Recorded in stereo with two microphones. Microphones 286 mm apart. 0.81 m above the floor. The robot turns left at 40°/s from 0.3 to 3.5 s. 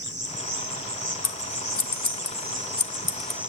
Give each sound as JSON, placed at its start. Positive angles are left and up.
{"t": 0.0, "sound": "an insect", "azimuth_deg": -50, "distance_m": 1.8}
{"t": 1.2, "sound": "scissors", "side_deg": 60, "distance_m": 0.7}